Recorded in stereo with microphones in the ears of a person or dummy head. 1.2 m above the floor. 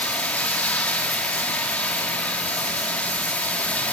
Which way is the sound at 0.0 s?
10° left (ahead or behind).